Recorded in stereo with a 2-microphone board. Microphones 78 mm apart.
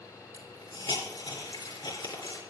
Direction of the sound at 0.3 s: 65° left (ahead or behind).